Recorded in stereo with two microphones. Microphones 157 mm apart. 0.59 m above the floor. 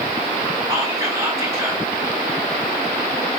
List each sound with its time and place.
0.7 s whispering: 20° right (ahead or behind), 0.6 m